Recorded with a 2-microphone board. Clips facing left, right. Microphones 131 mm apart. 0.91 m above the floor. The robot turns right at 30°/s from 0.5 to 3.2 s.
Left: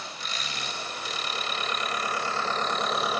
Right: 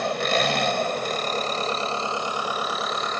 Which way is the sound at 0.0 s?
75° right.